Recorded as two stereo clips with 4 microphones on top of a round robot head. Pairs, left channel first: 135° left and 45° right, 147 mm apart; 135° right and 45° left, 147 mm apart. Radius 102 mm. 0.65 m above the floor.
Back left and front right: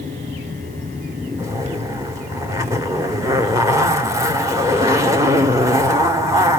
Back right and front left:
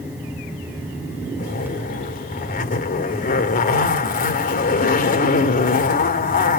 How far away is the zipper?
About 1.7 m.